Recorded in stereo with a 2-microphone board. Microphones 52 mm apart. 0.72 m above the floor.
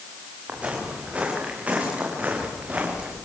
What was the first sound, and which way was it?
Footsteps, 25° right (ahead or behind).